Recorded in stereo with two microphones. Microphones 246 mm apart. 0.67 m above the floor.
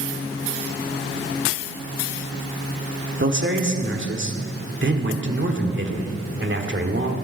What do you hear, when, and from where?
3.2 s a man speaking: 50° right (ahead or behind), 1.8 m